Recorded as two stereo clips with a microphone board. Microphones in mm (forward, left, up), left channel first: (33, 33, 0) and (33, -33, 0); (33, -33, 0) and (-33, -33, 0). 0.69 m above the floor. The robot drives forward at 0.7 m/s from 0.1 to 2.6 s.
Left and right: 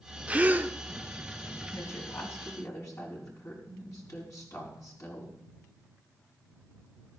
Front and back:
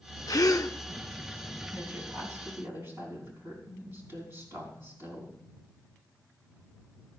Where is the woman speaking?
120° left, 5 m; by 5.3 s 125° left, 5.5 m.